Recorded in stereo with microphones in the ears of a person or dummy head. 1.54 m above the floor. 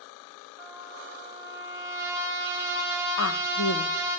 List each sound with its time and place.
0.6 s a trumpet: 10° right (ahead or behind), 3 m
3.2 s a woman speaking: 70° left (ahead or behind), 1.3 m